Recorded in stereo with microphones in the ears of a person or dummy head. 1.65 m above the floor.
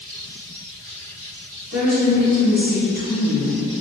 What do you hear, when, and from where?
1.7 s a woman speaking: 45° right (ahead or behind), 1.6 m